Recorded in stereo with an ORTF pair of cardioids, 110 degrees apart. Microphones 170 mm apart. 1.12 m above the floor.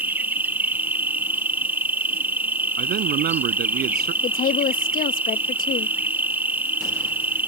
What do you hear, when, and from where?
0.0 s an insect: 10° right
2.8 s a man speaking: 70° right
4.2 s a woman speaking: 55° left